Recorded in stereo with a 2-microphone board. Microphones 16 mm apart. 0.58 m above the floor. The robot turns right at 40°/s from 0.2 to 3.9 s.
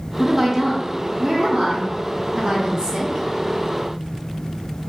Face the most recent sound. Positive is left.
turn(degrees=-15)